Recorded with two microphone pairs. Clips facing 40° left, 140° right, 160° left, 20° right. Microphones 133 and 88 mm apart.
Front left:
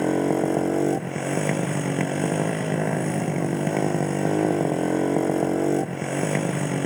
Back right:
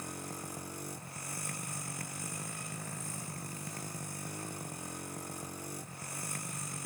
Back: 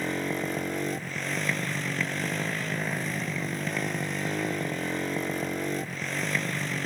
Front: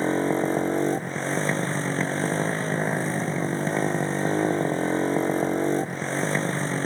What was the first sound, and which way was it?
A motorcycle, 35° left.